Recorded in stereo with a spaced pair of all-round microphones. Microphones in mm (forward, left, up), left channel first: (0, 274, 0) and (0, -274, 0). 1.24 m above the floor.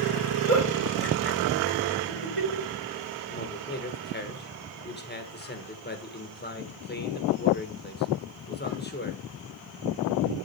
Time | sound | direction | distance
0.5 | a giggle | 70° right (ahead or behind) | 4 m
3.3 | a man speaking | 20° left (ahead or behind) | 1.6 m